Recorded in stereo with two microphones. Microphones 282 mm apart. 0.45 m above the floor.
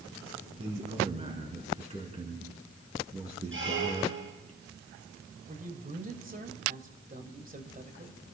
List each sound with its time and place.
0.6 s a man speaking: 20° right (ahead or behind), 4.5 m
3.5 s a squeak: 45° right (ahead or behind), 4 m
5.5 s a man speaking: 30° right (ahead or behind), 2.0 m